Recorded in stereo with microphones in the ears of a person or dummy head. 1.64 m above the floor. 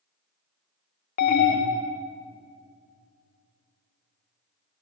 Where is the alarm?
40° left (ahead or behind), 0.7 m.